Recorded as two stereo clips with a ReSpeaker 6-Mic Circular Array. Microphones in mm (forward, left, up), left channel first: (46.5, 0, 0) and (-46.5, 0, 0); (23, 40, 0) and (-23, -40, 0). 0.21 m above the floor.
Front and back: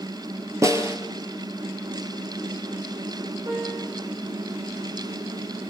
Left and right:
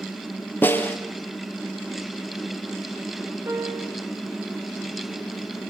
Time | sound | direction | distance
0.6 | a snare drum | 125° left | 3 m
3.5 | a piano | 170° right | 10 m